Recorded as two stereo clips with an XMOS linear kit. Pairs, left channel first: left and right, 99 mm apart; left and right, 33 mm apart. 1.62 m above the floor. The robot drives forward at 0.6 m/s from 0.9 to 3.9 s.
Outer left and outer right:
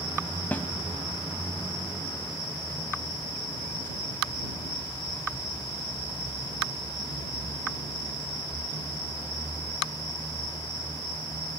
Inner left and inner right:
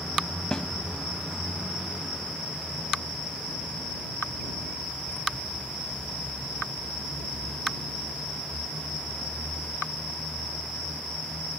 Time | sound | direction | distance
0.5 | a snare drum | 15° left (ahead or behind) | 1.5 m